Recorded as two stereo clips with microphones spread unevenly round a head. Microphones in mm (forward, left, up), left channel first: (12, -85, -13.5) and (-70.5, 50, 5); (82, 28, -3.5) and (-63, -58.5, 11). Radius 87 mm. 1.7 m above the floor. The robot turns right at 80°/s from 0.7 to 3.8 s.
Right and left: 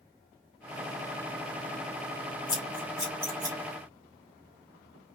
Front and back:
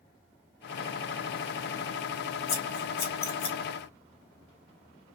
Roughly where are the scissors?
Ahead.